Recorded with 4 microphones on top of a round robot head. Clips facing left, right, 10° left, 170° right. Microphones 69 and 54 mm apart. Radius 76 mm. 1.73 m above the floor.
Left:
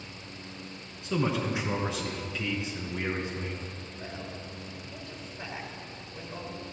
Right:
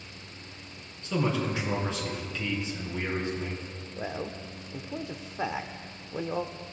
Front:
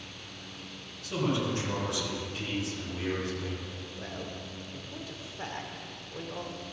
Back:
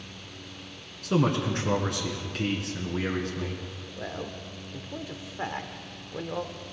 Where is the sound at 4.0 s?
105° right, 0.7 m.